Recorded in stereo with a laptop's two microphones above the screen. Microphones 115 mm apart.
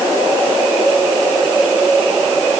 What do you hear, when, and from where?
Only background noise.